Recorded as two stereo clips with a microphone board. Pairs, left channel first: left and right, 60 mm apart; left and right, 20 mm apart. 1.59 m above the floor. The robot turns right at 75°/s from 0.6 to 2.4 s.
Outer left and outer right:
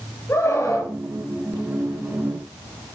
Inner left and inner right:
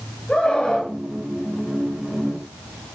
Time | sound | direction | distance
0.3 | a scream | 50° left (ahead or behind) | 8 m